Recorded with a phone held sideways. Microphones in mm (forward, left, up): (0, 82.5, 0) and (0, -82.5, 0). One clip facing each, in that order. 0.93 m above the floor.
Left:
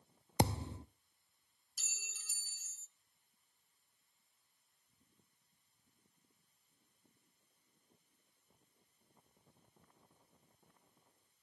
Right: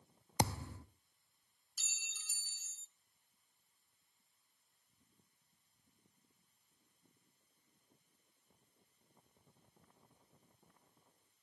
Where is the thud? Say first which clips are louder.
Left 3 dB; 25° left (ahead or behind), 0.5 m.